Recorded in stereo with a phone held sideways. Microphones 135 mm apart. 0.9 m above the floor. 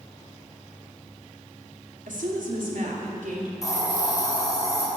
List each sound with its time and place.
2.1 s a woman speaking: 70° right (ahead or behind), 2 m; by 3.5 s 75° right (ahead or behind), 3.5 m
3.6 s a hiss: 25° left (ahead or behind), 3.5 m